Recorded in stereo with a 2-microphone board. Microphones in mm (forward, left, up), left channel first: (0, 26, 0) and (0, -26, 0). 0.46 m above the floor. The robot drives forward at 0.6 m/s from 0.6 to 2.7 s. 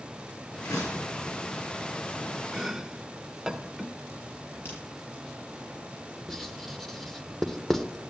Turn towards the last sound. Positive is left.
turn(degrees=5)  # may be behind; listen again after turning